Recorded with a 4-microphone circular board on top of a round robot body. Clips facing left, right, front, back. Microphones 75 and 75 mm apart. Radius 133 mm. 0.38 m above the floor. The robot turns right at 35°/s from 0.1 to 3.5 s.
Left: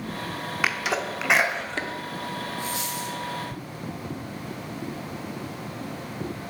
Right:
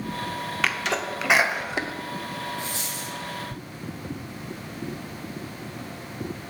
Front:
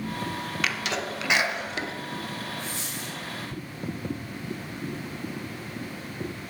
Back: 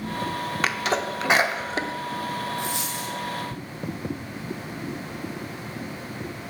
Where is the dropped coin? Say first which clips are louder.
Left 3 dB, back 6 dB; 160° right, 2 m; by 3.1 s 140° right, 2 m.